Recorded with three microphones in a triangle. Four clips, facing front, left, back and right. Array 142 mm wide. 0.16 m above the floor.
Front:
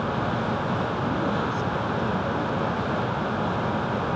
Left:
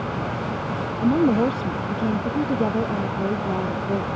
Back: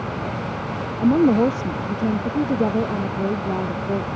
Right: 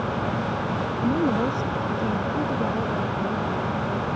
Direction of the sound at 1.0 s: 160° left.